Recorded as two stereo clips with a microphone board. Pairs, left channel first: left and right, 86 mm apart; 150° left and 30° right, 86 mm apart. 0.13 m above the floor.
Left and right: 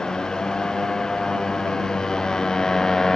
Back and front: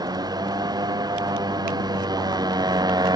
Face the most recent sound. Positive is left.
turn(degrees=5)